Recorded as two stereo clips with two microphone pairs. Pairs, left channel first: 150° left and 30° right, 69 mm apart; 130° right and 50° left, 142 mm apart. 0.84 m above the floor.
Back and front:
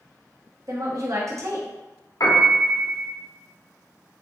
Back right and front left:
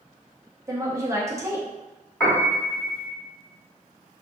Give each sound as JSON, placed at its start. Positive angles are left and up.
{"t": 0.7, "sound": "a woman speaking", "azimuth_deg": -15, "distance_m": 1.0}
{"t": 2.2, "sound": "a piano", "azimuth_deg": 165, "distance_m": 1.6}